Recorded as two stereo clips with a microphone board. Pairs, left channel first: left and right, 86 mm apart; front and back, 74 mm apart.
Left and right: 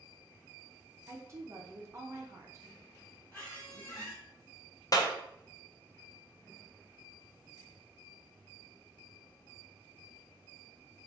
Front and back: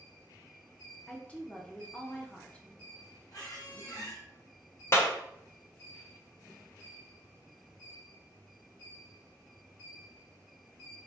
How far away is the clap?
About 0.5 m.